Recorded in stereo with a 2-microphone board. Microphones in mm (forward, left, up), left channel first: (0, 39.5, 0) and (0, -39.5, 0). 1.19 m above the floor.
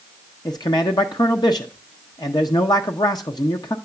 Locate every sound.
0.5 s a man speaking: 60° left (ahead or behind), 0.7 m